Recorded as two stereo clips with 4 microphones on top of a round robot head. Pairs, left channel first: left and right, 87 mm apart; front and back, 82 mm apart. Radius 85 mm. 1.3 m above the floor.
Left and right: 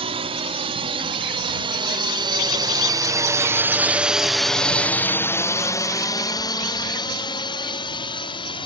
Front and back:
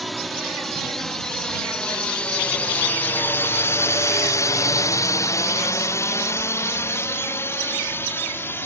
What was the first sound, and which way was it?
A drone, 90° right.